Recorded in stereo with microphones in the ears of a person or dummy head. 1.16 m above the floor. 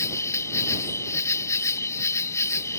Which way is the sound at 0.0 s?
15° left (ahead or behind).